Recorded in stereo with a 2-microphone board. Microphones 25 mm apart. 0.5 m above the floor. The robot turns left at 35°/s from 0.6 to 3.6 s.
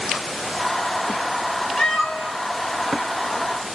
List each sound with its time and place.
1.8 s a cat meowing: 35° left (ahead or behind), 1.6 m; by 2.3 s 15° left (ahead or behind), 1.6 m